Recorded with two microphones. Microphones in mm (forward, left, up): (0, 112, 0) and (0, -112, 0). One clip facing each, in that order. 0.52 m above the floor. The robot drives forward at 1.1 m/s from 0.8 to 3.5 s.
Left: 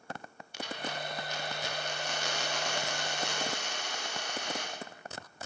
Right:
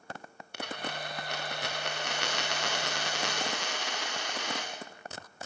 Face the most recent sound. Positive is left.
turn(degrees=-85)